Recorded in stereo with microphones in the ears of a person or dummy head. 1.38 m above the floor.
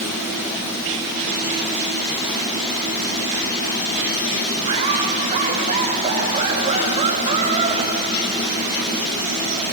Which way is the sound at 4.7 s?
35° right (ahead or behind).